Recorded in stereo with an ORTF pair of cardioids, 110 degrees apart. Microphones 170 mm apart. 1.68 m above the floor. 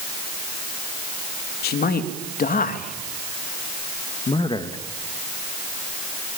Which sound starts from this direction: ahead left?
A man speaking, at 1.6 s.